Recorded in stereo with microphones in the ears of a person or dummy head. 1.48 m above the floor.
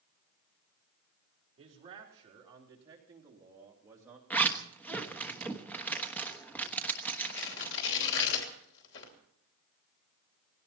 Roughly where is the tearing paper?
Left.